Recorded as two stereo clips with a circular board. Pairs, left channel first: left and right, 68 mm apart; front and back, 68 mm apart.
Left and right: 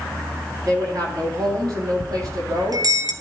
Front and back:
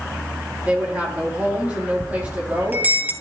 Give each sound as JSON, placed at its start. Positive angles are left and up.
{"t": 0.7, "sound": "a woman speaking", "azimuth_deg": -110, "distance_m": 4.0}
{"t": 2.0, "sound": "a bell", "azimuth_deg": -115, "distance_m": 1.0}